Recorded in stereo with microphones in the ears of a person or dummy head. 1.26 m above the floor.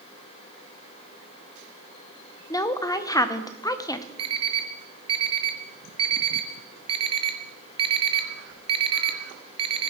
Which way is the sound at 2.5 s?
15° left (ahead or behind).